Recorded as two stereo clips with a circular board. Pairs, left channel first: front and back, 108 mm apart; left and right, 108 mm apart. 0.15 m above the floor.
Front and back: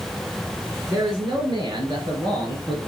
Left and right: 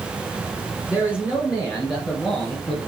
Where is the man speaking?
140° left, 2 m; by 2.8 s 155° left, 2.5 m.